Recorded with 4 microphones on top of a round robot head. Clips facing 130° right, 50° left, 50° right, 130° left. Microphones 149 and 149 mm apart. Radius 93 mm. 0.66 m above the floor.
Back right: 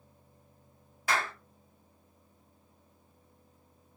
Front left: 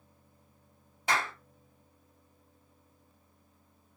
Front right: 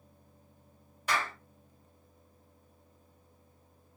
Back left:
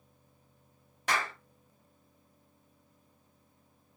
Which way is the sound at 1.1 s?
115° left.